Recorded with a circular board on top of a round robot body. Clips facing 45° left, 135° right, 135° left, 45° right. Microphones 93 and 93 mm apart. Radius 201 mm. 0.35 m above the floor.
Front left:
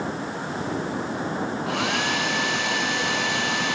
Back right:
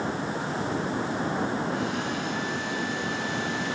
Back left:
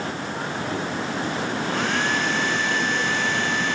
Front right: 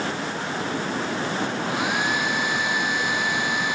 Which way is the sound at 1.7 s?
35° left.